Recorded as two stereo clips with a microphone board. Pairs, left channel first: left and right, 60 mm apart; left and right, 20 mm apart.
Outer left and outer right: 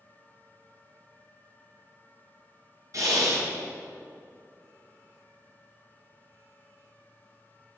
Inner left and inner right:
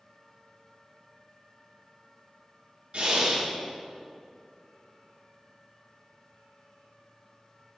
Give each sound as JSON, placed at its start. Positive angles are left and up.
{"t": 2.9, "sound": "breathing", "side_deg": -55, "distance_m": 2.5}